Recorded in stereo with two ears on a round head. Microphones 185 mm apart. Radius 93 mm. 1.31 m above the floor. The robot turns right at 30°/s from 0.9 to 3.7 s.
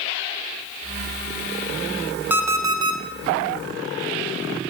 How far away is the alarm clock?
About 0.5 m.